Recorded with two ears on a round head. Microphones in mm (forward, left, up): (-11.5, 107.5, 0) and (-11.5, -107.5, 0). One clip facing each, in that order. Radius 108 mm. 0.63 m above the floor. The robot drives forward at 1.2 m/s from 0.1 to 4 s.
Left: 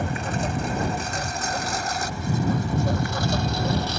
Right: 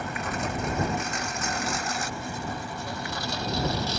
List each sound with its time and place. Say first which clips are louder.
0.0 s a lawn mower: left 4 dB; 25° left (ahead or behind); by 4.0 s 45° left (ahead or behind)